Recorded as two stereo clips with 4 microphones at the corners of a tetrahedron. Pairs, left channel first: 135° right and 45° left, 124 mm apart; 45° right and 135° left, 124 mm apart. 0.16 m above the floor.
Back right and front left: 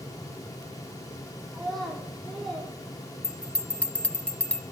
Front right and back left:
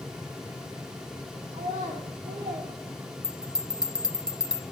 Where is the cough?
No cough in this recording.